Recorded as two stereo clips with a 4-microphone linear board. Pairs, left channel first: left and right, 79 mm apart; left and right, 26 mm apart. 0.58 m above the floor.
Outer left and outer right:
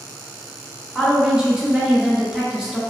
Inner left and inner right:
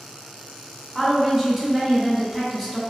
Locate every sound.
0.9 s a woman speaking: 10° right (ahead or behind), 1.1 m